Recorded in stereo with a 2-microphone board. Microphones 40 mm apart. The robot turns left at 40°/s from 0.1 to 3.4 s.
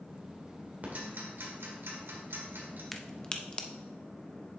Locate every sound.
0.8 s ticking: 40° right (ahead or behind), 1.7 m; by 2.8 s 55° right (ahead or behind), 1.7 m
2.9 s a crack: 10° left (ahead or behind), 0.6 m; by 3.7 s 30° left (ahead or behind), 0.6 m